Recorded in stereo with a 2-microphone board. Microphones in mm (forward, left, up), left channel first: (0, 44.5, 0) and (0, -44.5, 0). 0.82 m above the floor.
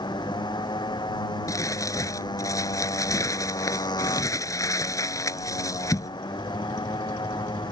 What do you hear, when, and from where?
0.0 s a motorcycle: 50° left (ahead or behind)
1.5 s crumpling: 35° left (ahead or behind)